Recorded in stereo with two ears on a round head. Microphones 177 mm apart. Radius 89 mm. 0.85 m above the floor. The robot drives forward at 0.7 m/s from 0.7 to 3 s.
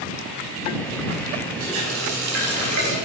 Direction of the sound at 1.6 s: 65° right (ahead or behind).